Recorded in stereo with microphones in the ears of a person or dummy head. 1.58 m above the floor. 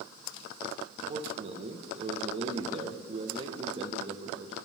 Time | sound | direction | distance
1.1 | a man speaking | 35° right (ahead or behind) | 1.6 m